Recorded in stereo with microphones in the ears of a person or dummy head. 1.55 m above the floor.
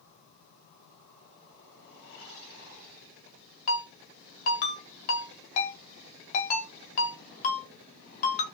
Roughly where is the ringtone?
Left.